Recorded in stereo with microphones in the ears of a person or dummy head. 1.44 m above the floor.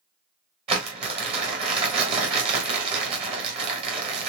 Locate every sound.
0.7 s crumpling: 35° right (ahead or behind), 1.8 m